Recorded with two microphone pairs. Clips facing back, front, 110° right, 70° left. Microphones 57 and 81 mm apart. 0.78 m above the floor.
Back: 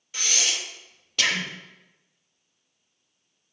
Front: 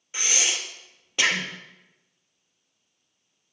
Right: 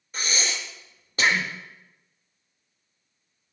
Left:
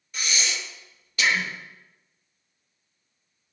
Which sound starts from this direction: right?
Breathing, at 0.1 s.